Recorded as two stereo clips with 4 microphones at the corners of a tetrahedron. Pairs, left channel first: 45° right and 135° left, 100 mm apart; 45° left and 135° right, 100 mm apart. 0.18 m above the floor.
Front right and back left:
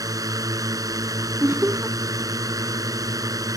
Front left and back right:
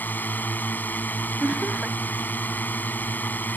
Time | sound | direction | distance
0.0 | a drone | 110° left | ?
1.4 | laughter | 160° left | ?